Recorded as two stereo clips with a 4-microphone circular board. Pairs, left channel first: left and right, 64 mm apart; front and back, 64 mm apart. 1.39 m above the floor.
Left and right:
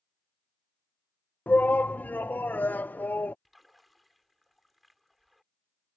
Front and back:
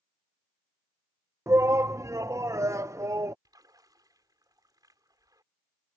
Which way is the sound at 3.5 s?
Straight behind.